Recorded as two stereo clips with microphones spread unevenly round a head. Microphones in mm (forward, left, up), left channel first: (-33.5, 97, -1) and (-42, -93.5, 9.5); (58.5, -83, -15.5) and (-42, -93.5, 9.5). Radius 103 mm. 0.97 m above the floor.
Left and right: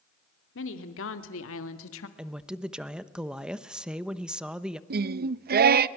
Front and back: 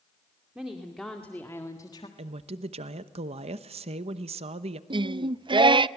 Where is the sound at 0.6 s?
100° left, 2 m; by 2.1 s 70° left, 1.3 m.